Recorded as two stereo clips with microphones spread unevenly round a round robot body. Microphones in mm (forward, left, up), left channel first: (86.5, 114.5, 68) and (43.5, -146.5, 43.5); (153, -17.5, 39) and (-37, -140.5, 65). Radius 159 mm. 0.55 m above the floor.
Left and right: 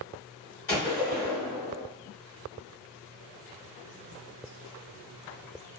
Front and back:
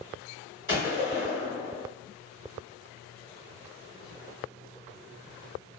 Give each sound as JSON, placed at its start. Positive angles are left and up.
{"t": 0.7, "sound": "a gunshot", "azimuth_deg": 140, "distance_m": 1.9}